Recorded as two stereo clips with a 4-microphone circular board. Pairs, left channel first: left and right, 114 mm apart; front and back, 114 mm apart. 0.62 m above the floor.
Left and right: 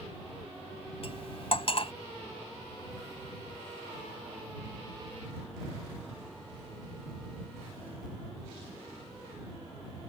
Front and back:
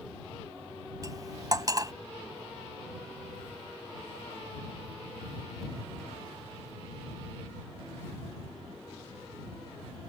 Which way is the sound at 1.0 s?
125° left.